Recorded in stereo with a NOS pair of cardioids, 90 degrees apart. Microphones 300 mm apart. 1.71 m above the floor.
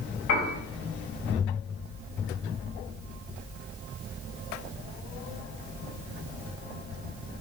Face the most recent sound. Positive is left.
turn(degrees=65)